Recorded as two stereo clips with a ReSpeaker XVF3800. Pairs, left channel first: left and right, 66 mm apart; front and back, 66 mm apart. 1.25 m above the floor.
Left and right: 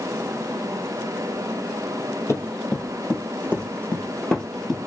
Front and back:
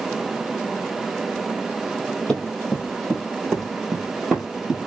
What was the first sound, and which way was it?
Running footsteps, 75° left.